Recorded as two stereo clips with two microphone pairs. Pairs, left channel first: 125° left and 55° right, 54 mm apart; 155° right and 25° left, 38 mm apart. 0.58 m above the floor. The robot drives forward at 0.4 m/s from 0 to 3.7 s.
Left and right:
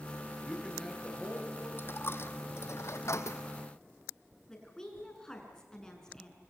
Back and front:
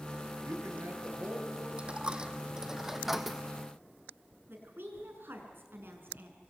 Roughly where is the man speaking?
Ahead left.